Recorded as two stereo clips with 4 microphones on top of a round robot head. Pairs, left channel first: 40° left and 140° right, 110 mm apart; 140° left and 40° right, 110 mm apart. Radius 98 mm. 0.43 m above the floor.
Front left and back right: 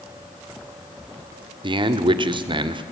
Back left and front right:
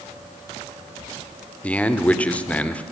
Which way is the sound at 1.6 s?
150° right.